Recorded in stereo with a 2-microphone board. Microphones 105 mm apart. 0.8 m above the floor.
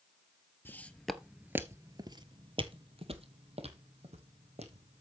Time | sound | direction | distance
0.7 | footsteps | 20° left (ahead or behind) | 1.0 m